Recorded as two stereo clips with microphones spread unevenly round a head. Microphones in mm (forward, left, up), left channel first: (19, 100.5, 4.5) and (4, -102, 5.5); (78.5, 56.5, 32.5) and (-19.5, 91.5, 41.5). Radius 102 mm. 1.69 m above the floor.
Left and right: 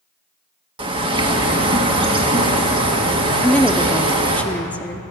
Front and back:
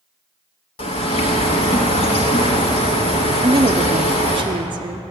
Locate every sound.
0.8 s a bird: 40° right, 1.3 m
3.4 s a woman speaking: 165° left, 0.6 m